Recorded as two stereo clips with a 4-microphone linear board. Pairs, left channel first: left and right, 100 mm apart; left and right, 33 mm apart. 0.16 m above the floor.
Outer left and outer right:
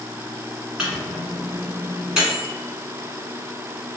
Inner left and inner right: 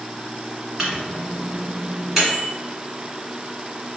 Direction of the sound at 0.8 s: 5° right (ahead or behind).